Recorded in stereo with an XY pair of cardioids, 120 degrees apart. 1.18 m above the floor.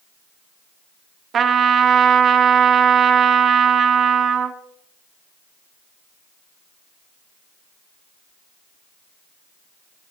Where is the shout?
I don't hear a shout.